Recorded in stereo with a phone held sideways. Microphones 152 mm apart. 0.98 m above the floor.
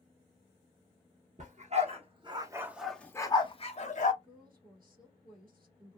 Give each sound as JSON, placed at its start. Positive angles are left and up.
{"t": 1.4, "sound": "a dog barking", "side_deg": -50, "distance_m": 0.9}
{"t": 4.2, "sound": "a woman speaking", "side_deg": -70, "distance_m": 1.6}